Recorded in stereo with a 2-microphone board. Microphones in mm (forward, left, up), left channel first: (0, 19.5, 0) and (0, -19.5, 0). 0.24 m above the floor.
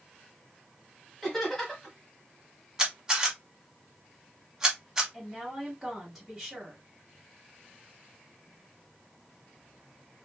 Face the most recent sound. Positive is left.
turn(degrees=-5)  # may be behind; listen again after turning